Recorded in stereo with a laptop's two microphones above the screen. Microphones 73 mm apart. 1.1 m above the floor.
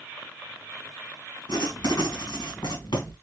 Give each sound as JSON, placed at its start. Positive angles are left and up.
{"t": 1.5, "sound": "writing", "side_deg": 65, "distance_m": 1.5}